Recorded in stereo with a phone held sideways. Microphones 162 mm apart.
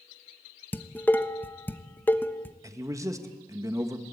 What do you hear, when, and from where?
0.7 s dishes clattering: 10° left (ahead or behind), 1.0 m
2.6 s a man speaking: 20° right (ahead or behind), 1.6 m